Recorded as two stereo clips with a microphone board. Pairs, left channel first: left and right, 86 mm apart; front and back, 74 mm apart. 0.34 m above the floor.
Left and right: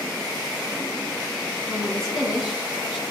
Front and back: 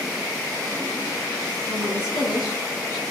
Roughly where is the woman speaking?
Behind.